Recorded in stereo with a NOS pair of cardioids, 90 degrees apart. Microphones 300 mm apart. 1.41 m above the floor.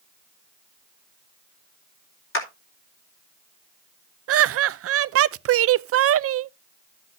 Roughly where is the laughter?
Ahead right.